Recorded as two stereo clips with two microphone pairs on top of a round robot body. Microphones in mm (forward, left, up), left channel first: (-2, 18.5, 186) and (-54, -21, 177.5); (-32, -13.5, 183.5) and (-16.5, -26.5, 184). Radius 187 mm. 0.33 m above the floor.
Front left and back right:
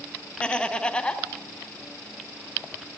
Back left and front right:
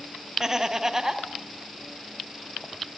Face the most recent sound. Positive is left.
turn(degrees=-35)